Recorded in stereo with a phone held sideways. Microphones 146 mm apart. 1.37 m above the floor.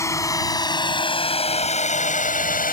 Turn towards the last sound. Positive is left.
turn(degrees=80)